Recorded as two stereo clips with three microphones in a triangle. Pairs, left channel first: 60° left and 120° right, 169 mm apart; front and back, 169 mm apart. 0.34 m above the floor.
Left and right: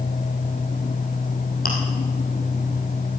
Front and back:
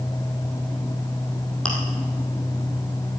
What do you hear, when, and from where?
1.6 s chewing: 85° left, 3.5 m